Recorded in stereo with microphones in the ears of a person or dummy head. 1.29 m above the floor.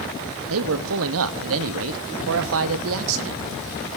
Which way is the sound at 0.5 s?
80° right.